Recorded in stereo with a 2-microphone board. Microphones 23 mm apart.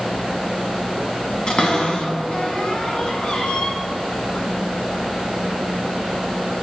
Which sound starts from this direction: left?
A cupboard door, at 1.5 s.